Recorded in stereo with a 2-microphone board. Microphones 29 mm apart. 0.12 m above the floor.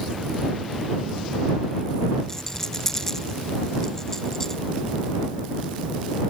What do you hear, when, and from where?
2.3 s a rattle: 15° left (ahead or behind)